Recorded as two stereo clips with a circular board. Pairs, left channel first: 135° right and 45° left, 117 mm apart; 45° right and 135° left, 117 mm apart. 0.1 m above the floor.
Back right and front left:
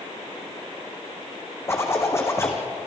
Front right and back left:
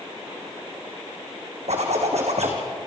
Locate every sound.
1.7 s a zipper: 160° left, 3 m